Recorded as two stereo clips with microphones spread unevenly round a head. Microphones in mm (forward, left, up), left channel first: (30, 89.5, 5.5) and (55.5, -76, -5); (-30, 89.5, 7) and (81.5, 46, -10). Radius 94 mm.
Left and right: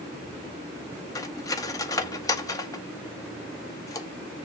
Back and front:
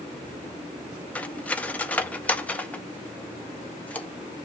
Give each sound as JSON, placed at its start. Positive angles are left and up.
{"t": 1.1, "sound": "cutlery clinking", "azimuth_deg": 120, "distance_m": 0.7}